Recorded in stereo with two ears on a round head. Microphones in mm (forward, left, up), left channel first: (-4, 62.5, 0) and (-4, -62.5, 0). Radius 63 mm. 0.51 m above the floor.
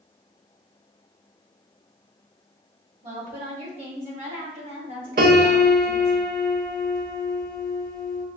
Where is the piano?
65° right (ahead or behind), 0.8 m.